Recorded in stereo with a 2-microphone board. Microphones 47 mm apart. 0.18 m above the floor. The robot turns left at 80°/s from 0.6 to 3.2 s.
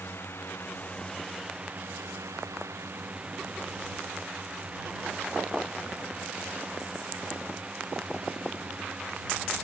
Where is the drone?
60° left; by 9.6 s 150° right.